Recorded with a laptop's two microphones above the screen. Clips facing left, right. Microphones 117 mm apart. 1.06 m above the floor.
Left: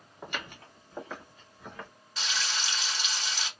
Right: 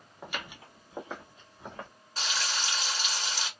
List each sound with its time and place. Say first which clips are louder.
0.2 s footsteps: left 1 dB; centre (ahead or behind), 1.2 m; by 1.9 s 30° right (ahead or behind), 1.8 m
2.2 s frying: right 1 dB; 40° right (ahead or behind), 1.4 m